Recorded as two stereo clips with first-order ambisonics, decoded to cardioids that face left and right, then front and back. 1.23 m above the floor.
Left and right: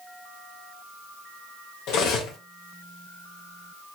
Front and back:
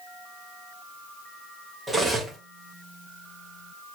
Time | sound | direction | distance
1.9 | cutlery clinking | 100° left | 0.7 m